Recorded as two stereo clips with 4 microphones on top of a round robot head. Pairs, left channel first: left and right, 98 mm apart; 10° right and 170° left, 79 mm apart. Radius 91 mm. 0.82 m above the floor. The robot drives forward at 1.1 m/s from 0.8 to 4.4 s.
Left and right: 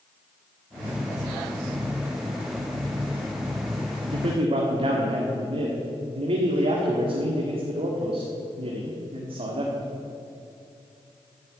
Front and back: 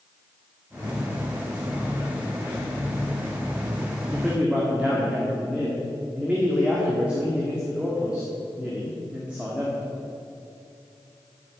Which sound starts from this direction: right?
A man speaking, at 4.1 s.